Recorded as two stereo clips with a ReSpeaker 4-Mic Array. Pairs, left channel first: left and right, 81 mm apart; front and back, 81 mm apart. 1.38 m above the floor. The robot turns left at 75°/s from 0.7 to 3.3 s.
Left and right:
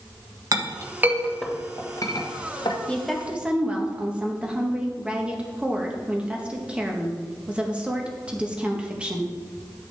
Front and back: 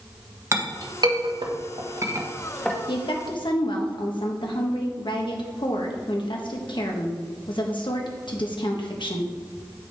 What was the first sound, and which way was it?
A clink, 130° right.